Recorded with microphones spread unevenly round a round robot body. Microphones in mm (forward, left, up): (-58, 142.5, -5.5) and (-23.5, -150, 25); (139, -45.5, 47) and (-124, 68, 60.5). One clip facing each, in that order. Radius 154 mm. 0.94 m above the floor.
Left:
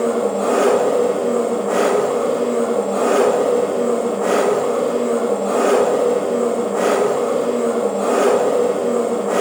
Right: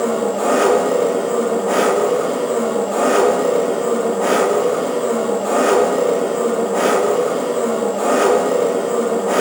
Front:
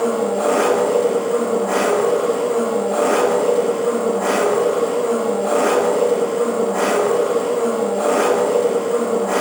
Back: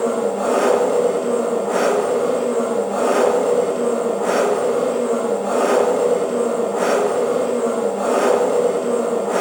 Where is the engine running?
70° right, 1.7 m.